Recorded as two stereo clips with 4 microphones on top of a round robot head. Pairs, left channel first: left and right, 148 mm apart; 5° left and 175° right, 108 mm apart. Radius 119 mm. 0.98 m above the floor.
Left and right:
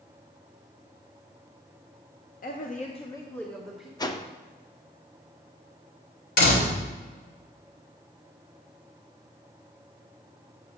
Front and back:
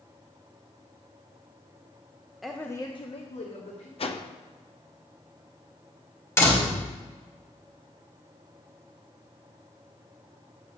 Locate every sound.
2.4 s a woman speaking: 100° left, 0.9 m; by 3.9 s 5° right, 1.6 m
4.0 s a whoosh: 30° left, 0.8 m
6.4 s a door slam: 75° left, 2.5 m